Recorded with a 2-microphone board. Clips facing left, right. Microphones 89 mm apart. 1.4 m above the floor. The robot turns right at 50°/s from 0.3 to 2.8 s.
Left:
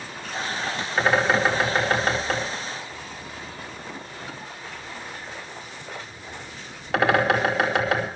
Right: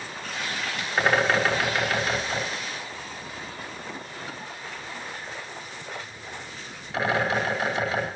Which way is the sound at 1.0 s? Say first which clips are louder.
Left 1 dB; 5° right (ahead or behind).